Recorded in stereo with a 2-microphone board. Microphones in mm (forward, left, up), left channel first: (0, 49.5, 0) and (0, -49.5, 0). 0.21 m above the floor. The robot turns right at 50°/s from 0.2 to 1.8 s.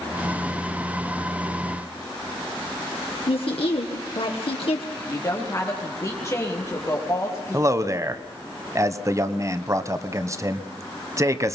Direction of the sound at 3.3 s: 70° left (ahead or behind).